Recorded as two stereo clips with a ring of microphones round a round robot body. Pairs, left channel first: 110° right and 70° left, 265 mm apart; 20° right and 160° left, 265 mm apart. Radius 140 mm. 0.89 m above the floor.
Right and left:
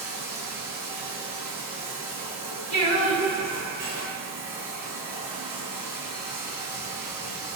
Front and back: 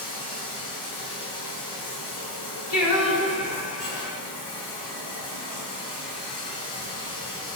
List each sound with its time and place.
0.0 s running water: 15° right, 4 m
2.7 s singing: 45° right, 4 m